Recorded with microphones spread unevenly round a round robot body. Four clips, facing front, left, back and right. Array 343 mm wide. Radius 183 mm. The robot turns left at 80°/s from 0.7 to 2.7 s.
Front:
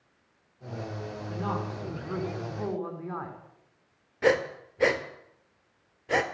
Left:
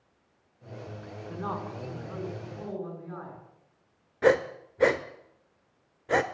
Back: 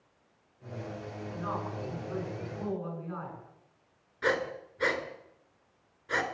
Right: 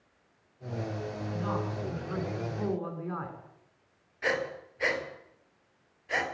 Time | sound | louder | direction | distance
1.3 | a man speaking | even, front 3 dB | 55° left | 6.5 m
4.2 | breathing | left 9 dB, front 6 dB | 65° left | 1.8 m